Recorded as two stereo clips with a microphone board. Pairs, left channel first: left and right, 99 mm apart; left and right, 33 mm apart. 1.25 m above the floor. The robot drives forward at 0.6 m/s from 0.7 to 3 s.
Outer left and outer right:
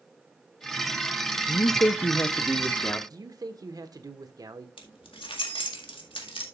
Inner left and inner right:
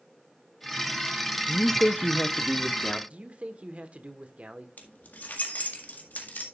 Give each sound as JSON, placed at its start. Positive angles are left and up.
{"t": 1.5, "sound": "a man speaking", "side_deg": 40, "distance_m": 0.5}
{"t": 3.1, "sound": "a man speaking", "side_deg": -40, "distance_m": 1.1}
{"t": 4.8, "sound": "keys jangling", "side_deg": 60, "distance_m": 1.7}